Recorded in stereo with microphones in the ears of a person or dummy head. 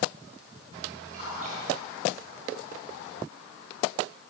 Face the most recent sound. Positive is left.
turn(degrees=-45)  # may be behind; listen again after turning